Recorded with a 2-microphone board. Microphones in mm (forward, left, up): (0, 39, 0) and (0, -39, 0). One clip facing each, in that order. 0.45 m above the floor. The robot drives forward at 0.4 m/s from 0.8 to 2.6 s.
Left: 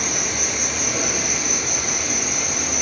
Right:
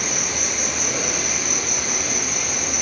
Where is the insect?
15° left (ahead or behind), 0.7 m; by 2.8 s 10° left (ahead or behind), 1.4 m.